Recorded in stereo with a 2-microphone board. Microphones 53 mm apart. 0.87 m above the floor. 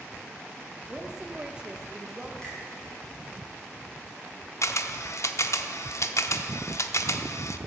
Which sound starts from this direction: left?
A camera shutter, at 4.6 s.